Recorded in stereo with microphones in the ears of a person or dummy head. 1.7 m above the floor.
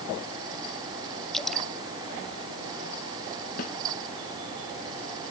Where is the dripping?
Centre (ahead or behind).